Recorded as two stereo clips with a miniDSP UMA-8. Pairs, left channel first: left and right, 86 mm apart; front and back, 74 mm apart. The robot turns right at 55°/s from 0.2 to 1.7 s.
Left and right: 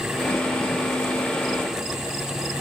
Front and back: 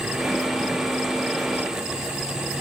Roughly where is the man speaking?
I don't hear a man speaking.